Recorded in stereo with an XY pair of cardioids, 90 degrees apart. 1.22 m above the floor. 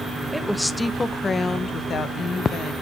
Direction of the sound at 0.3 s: 5° right.